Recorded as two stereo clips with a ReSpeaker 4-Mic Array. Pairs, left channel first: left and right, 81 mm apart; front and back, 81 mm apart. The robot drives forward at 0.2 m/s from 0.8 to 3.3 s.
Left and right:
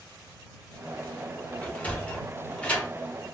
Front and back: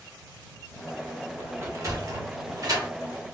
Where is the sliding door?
155° left, 0.8 m; by 2.9 s 160° left, 1.0 m.